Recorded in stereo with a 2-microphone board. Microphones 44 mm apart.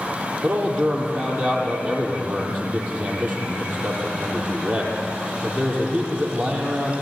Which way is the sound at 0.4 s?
40° right (ahead or behind).